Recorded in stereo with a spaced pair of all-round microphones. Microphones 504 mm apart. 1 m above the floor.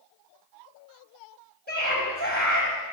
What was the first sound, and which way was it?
A scream, 20° left (ahead or behind).